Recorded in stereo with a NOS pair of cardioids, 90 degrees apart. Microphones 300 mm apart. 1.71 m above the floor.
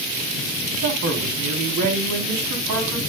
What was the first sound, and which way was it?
A man speaking, 65° right.